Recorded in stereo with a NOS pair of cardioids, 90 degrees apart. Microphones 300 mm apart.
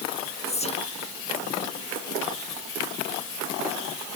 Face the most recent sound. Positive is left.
turn(degrees=20)